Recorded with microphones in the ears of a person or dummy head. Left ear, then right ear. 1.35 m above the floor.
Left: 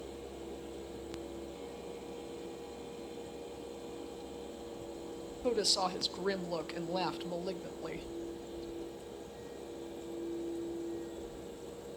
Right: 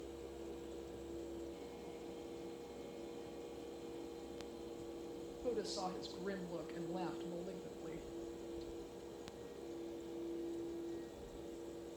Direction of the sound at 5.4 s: 30° left (ahead or behind).